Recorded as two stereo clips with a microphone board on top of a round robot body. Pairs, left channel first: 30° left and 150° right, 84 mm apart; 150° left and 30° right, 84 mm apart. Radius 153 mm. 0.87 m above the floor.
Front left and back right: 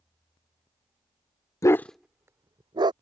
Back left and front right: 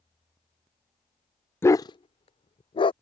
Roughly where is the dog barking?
Left.